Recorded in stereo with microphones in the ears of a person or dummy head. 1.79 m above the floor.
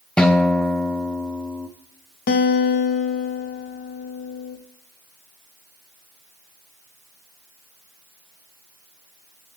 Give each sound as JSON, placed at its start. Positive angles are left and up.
{"t": 0.2, "sound": "a guitar", "side_deg": 0, "distance_m": 0.5}
{"t": 2.3, "sound": "a guitar", "side_deg": 40, "distance_m": 0.5}